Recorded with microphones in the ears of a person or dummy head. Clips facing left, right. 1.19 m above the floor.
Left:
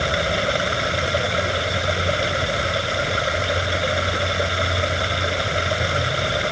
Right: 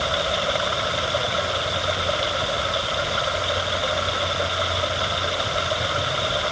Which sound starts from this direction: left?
Running water, at 0.0 s.